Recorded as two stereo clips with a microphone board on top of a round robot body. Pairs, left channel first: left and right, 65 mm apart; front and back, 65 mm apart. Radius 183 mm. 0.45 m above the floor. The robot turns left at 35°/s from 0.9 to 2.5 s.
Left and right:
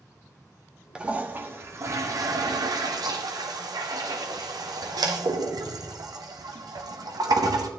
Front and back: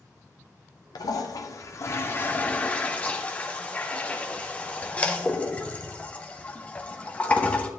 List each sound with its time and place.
0.9 s a toilet flushing: 15° right, 1.0 m; by 7.7 s 70° right, 1.0 m